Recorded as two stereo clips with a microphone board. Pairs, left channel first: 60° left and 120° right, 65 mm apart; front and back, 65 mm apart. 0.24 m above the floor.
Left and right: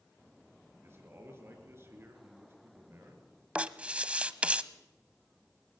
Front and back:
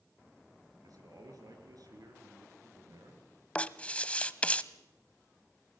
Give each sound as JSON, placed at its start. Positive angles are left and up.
{"t": 0.8, "sound": "a man speaking", "azimuth_deg": -170, "distance_m": 4.5}
{"t": 3.5, "sound": "writing", "azimuth_deg": -60, "distance_m": 0.6}